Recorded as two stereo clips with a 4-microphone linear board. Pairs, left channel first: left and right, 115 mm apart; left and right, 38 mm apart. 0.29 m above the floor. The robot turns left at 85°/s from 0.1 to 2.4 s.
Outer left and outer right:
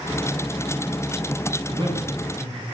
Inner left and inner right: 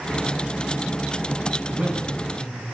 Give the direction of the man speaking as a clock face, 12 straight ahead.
4 o'clock.